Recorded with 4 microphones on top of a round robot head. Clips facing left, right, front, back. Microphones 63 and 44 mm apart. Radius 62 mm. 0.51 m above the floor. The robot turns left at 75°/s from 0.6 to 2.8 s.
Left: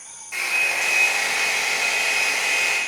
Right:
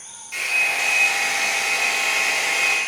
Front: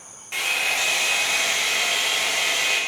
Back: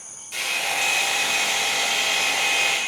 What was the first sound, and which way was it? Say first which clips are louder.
A hair dryer: right 1 dB, front 2 dB; 40° left.